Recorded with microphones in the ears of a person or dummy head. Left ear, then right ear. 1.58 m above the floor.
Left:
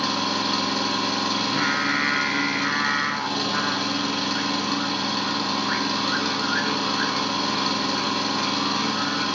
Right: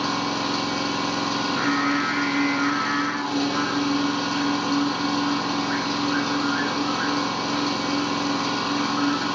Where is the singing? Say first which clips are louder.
Even; 50° left (ahead or behind), 0.7 m.